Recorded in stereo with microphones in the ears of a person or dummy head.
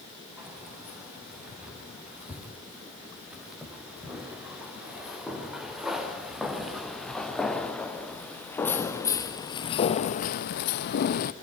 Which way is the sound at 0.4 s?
10° right (ahead or behind).